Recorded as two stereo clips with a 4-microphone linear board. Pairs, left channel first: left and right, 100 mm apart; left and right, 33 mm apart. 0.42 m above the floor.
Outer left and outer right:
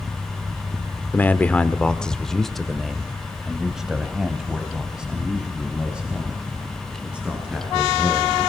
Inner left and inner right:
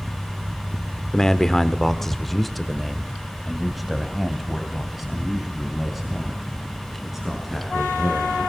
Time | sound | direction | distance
1.1 | a man speaking | 20° left (ahead or behind) | 1.0 m